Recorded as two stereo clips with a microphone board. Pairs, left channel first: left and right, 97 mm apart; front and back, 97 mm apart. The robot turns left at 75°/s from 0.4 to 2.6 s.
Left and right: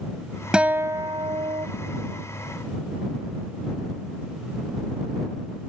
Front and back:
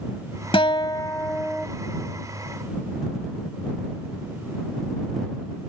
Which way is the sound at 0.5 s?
10° right.